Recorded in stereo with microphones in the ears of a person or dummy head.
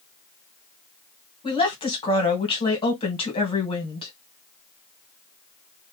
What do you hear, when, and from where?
1.4 s a woman speaking: 30° left (ahead or behind), 1.5 m